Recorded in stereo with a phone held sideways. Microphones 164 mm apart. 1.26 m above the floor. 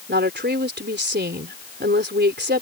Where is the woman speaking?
85° right.